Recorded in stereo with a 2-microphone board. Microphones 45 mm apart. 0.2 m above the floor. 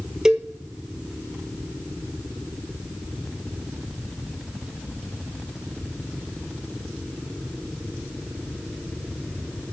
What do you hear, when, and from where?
0.2 s a cowbell: 15° right (ahead or behind), 0.9 m